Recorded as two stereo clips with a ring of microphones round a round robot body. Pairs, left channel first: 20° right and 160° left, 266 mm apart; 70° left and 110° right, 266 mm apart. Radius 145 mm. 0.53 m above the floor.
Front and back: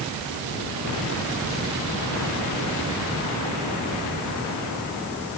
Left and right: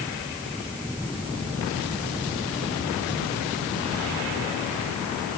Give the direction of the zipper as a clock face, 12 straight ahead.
No zipper in this recording.